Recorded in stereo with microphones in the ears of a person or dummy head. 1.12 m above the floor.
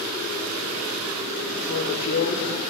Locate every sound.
1.7 s a woman speaking: 45° left (ahead or behind), 4 m